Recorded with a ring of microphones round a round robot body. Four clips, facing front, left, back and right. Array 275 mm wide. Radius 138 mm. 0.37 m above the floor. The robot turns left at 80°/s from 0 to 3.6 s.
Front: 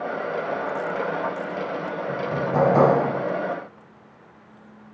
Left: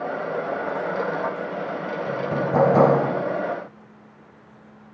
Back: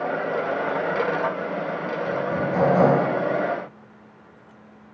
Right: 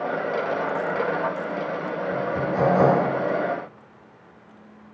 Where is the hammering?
115° left, 8 m; by 3.0 s 45° left, 8 m.